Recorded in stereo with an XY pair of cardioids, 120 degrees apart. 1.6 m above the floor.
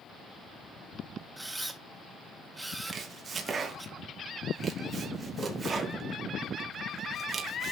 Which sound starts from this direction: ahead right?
Chopping, at 2.9 s.